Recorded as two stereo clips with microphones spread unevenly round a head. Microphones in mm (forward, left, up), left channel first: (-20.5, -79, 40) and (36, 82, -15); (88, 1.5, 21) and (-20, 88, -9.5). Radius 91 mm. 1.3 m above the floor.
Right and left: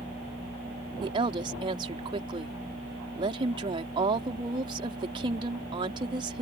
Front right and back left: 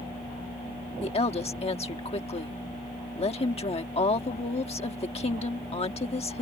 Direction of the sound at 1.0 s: 10° left.